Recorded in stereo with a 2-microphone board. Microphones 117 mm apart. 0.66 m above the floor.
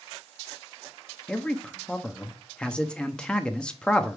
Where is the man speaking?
10° left (ahead or behind), 0.8 m.